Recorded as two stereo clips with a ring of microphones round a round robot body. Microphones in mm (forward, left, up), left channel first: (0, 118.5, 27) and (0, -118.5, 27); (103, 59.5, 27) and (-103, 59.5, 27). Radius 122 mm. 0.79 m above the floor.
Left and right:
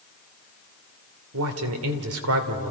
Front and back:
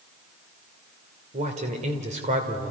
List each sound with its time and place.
1.3 s a man speaking: 115° right, 2.5 m